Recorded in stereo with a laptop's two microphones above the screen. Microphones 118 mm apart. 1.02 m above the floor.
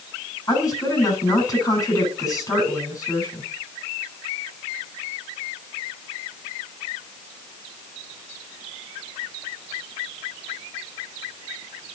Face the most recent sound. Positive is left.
turn(degrees=25)  # may be behind; listen again after turning